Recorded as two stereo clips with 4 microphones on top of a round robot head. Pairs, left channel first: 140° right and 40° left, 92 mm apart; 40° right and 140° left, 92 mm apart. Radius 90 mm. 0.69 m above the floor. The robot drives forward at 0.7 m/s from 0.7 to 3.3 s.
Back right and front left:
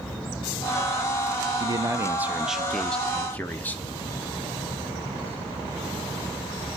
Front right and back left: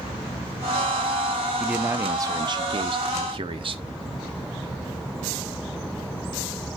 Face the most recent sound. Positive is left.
turn(degrees=145)